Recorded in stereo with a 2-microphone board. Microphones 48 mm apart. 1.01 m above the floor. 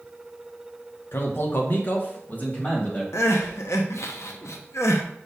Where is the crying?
75° left (ahead or behind), 0.6 m.